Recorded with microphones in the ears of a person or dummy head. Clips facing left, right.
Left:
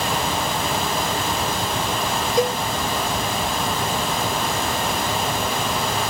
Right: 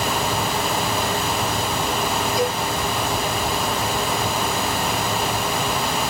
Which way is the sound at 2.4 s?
40° left (ahead or behind).